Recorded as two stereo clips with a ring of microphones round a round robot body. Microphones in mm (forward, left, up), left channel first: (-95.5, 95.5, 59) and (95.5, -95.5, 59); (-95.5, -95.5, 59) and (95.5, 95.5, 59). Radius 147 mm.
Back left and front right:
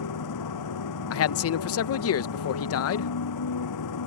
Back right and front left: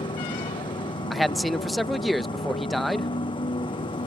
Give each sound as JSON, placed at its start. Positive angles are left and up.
{"t": 0.0, "sound": "a motorcycle", "azimuth_deg": 150}
{"t": 1.1, "sound": "a man speaking", "azimuth_deg": 135}